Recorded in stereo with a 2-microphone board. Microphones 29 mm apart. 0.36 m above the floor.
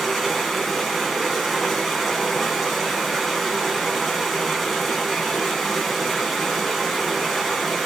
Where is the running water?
5° left (ahead or behind), 2.5 m.